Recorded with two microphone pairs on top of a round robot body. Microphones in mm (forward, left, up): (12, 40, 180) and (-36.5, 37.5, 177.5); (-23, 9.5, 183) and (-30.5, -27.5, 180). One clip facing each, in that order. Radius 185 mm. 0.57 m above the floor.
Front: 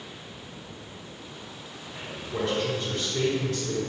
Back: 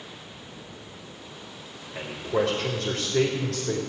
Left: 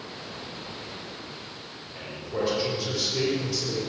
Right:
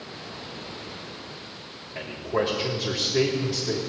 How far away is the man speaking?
About 3 m.